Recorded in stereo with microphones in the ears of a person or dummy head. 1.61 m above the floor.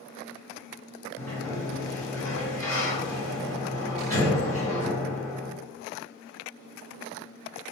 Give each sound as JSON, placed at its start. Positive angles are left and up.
{"t": 1.2, "sound": "a sliding door", "side_deg": 15, "distance_m": 1.8}